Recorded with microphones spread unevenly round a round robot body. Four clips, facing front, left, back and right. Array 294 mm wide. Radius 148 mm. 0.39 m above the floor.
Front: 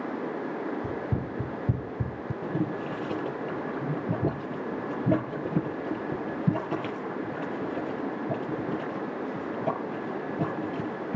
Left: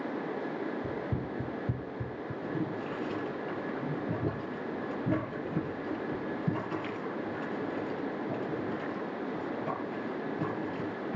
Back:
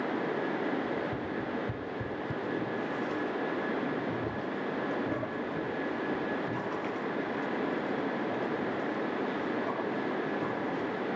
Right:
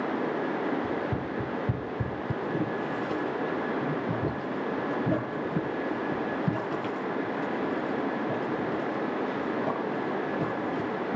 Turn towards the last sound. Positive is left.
turn(degrees=-15)